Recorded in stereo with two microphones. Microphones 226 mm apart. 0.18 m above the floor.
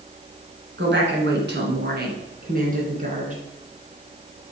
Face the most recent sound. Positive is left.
turn(degrees=-35)  # may be behind; listen again after turning